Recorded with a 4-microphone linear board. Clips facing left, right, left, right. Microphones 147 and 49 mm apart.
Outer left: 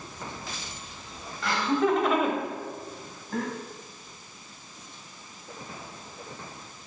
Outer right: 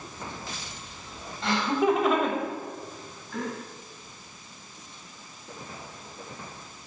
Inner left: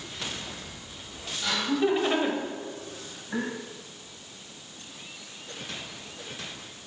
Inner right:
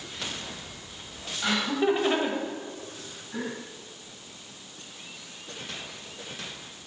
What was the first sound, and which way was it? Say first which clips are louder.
Laughter: outer right 1 dB, inner right 1 dB; 25° right (ahead or behind).